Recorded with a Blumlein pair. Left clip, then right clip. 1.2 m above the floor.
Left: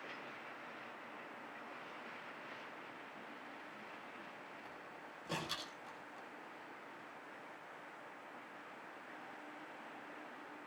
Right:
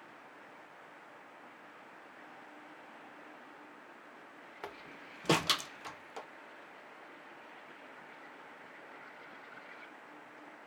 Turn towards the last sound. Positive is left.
turn(degrees=-40)